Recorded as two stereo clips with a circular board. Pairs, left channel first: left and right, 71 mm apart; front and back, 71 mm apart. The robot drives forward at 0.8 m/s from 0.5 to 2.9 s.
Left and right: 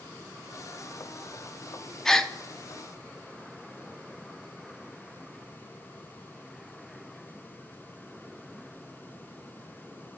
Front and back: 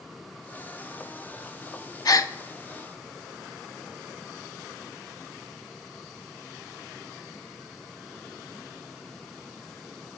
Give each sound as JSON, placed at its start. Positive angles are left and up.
{"t": 2.0, "sound": "a gasp", "azimuth_deg": 5, "distance_m": 0.7}